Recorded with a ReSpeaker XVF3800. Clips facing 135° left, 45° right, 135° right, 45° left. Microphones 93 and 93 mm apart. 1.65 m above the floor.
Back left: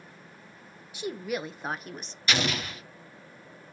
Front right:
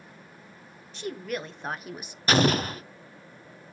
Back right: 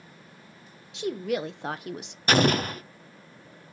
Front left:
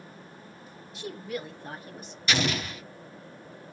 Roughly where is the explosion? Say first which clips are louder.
Front right 7 dB, back right 7 dB; right.